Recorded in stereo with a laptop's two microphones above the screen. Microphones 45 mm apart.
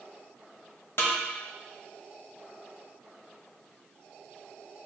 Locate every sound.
1.0 s a snare drum: 55° left (ahead or behind), 0.7 m